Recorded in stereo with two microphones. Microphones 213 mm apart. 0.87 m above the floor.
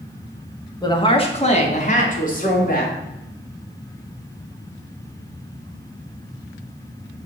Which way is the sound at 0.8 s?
20° left (ahead or behind).